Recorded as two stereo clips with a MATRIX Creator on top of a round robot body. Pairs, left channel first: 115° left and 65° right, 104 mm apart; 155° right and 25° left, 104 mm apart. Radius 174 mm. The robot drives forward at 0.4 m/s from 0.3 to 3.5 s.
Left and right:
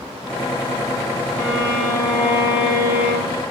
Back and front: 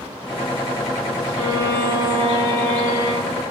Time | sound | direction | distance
1.4 | a violin | 55° left | 3 m